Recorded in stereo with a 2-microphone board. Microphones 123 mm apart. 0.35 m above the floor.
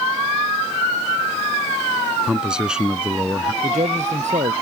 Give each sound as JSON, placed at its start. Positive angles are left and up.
{"t": 2.3, "sound": "a man speaking", "side_deg": -5}
{"t": 3.6, "sound": "a man speaking", "side_deg": -70}